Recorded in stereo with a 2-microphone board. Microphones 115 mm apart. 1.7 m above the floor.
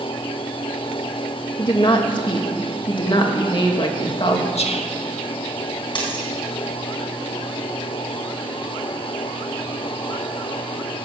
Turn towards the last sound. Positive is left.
turn(degrees=45)  # may be behind; listen again after turning